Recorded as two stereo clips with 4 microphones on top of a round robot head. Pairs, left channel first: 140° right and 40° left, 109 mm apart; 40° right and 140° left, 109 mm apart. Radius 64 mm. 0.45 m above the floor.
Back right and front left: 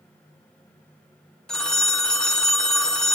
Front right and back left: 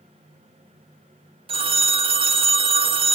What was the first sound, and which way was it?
A phone ringing, 135° left.